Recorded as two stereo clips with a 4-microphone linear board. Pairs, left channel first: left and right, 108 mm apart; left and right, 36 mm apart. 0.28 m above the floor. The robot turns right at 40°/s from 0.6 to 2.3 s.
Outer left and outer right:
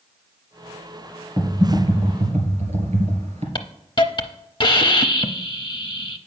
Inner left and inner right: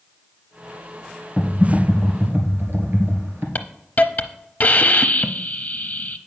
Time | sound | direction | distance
1.4 | typing on a keyboard | 140° right | 2 m
3.5 | a hiss | 45° left (ahead or behind) | 0.6 m